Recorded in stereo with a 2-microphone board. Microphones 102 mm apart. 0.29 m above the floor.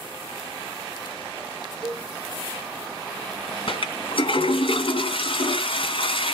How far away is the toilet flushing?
About 2 m.